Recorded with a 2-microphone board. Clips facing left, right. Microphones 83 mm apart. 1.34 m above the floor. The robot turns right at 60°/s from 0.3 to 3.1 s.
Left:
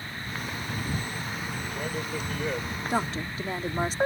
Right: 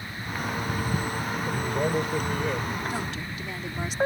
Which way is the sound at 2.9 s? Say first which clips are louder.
Left 4 dB; 50° left (ahead or behind).